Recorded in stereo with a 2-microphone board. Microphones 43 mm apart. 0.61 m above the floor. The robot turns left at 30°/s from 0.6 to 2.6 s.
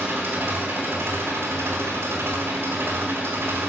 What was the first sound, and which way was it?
An engine running, 55° right.